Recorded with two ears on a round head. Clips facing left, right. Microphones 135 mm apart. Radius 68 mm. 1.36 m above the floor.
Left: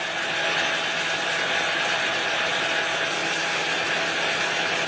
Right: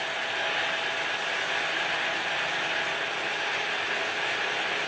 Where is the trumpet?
No trumpet in this recording.